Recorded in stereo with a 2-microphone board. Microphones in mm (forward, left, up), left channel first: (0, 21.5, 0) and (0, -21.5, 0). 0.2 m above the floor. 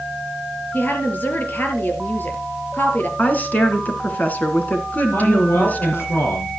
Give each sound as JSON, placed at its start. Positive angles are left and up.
{"t": 0.7, "sound": "a woman speaking", "side_deg": 45, "distance_m": 4.0}
{"t": 3.2, "sound": "a woman speaking", "side_deg": 40, "distance_m": 3.0}
{"t": 5.1, "sound": "a man speaking", "side_deg": 75, "distance_m": 5.5}